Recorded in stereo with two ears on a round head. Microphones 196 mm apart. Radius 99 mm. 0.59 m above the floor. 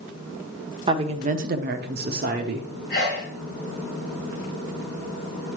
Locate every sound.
0.9 s a woman speaking: 20° right (ahead or behind), 1.0 m; by 2.7 s 35° right (ahead or behind), 1.3 m
2.9 s a sneeze: 40° left (ahead or behind), 3 m